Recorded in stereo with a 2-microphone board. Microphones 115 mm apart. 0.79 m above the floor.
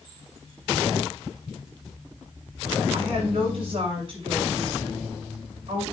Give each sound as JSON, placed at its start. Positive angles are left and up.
{"t": 2.9, "sound": "a woman speaking", "side_deg": -50, "distance_m": 6.0}